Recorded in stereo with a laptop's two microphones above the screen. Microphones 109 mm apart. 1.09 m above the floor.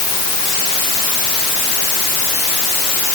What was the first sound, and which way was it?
Only background noise.